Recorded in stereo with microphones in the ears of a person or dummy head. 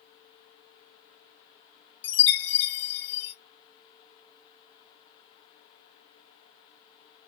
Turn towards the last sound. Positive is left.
turn(degrees=35)  # may be behind; listen again after turning